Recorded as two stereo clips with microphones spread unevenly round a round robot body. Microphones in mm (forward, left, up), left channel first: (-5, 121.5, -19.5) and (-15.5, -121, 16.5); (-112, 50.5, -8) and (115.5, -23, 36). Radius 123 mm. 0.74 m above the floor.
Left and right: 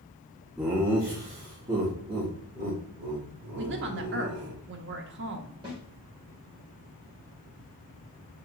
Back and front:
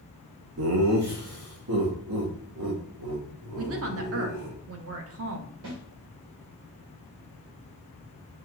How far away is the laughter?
About 0.6 m.